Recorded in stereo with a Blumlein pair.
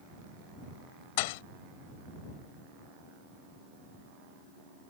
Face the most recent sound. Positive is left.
turn(degrees=50)